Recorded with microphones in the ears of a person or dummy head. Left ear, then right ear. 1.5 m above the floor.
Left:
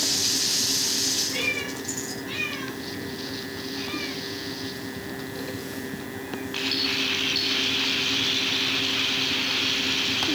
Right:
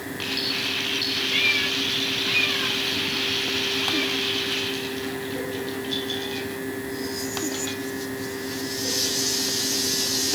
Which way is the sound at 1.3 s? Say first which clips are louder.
Right 6 dB; 45° right (ahead or behind).